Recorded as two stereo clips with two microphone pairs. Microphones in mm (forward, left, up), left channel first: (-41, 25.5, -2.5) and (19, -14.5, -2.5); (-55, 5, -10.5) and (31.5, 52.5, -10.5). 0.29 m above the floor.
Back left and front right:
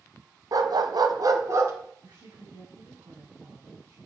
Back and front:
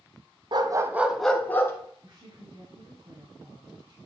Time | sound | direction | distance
0.5 | a dog barking | 5° right | 1.0 m
2.0 | a woman speaking | 15° left | 2.5 m